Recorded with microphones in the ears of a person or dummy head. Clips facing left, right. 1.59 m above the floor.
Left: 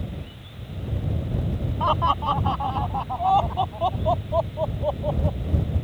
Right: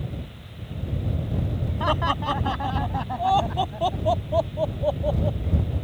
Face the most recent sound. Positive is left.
turn(degrees=-25)  # may be behind; listen again after turning